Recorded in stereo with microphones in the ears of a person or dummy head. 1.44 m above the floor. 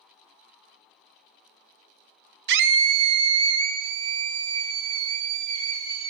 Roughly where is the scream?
Right.